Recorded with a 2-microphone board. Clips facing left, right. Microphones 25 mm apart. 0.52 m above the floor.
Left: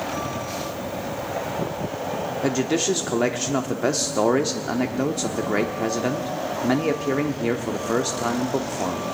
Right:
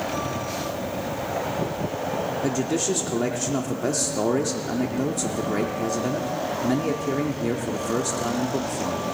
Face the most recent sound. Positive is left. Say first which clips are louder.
# left 4 dB
turn(degrees=35)  # may be behind; listen again after turning